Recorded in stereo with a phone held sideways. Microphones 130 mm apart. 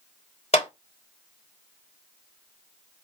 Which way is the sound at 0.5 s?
55° left (ahead or behind).